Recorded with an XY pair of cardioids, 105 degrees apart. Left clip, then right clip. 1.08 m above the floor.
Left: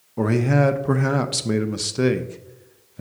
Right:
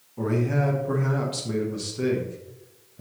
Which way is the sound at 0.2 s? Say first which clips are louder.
Left 6 dB; 65° left.